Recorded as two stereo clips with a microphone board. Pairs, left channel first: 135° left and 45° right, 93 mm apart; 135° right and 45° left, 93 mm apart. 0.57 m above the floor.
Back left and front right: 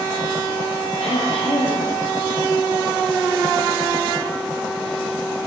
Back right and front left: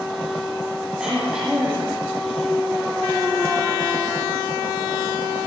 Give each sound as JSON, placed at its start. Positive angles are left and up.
{"t": 1.0, "sound": "throat clearing", "azimuth_deg": 130, "distance_m": 7.5}